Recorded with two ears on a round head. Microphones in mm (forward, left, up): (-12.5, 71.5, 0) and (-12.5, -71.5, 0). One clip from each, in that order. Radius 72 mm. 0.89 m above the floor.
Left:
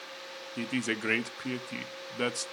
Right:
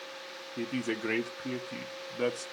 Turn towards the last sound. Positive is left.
turn(degrees=60)  # may be behind; listen again after turning